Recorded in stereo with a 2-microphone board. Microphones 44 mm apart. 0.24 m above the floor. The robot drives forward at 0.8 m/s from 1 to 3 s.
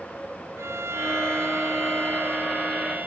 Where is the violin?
75° right (ahead or behind); by 3.1 s 45° right (ahead or behind).